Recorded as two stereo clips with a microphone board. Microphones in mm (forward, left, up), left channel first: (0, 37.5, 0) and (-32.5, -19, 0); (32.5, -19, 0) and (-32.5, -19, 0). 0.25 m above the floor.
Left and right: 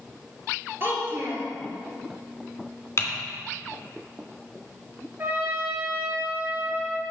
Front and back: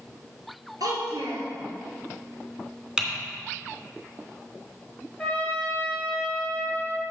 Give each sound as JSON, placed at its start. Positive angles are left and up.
{"t": 0.8, "sound": "a child speaking", "azimuth_deg": -175, "distance_m": 3.0}
{"t": 3.0, "sound": "typing on a keyboard", "azimuth_deg": 100, "distance_m": 2.5}
{"t": 5.2, "sound": "a trumpet", "azimuth_deg": -75, "distance_m": 3.0}